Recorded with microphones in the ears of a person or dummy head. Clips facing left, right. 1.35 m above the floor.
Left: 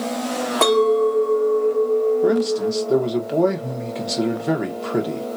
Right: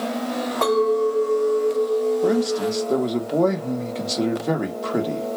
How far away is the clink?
About 1.0 m.